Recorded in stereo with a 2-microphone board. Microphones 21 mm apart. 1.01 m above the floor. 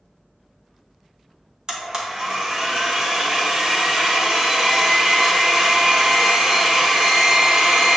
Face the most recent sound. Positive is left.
turn(degrees=-35)  # may be behind; listen again after turning